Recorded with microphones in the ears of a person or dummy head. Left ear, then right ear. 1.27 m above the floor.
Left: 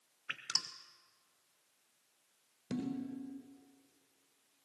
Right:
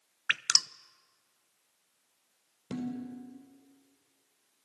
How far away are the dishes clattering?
About 3.5 m.